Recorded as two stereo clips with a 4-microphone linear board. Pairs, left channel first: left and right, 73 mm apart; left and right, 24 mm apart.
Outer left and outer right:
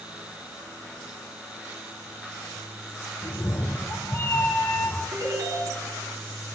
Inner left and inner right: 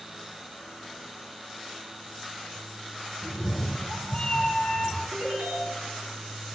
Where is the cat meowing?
35° left (ahead or behind), 1.7 m.